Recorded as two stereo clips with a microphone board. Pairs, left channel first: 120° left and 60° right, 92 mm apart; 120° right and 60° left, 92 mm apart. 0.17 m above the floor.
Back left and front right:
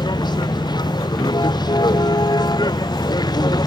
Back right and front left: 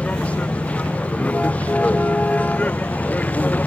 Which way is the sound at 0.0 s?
165° left.